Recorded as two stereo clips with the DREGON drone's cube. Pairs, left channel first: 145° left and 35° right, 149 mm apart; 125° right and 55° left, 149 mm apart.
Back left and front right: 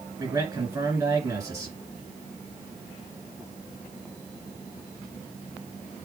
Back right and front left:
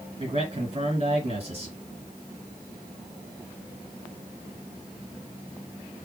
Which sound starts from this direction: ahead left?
A man speaking, at 0.2 s.